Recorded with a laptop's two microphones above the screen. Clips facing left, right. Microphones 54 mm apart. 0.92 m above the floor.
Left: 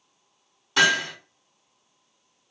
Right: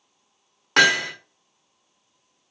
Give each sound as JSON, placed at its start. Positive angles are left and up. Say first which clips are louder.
{"t": 0.8, "sound": "hammering", "louder": "right 3 dB", "side_deg": -60, "distance_m": 0.9}